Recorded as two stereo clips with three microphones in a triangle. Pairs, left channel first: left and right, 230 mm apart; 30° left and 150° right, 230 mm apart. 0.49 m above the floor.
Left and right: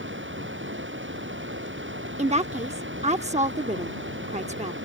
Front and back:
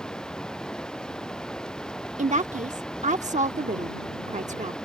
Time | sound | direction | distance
0.0 | running water | 55° right | ?
2.2 | a woman speaking | 125° right | ?